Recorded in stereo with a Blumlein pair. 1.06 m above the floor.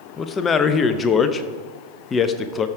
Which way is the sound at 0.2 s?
20° left.